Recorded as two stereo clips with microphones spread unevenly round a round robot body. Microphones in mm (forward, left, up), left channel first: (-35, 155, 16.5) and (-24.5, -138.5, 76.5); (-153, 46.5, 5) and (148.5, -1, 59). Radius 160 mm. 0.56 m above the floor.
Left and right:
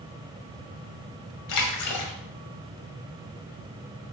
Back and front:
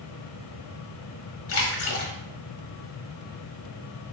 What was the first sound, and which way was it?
A splash, 120° left.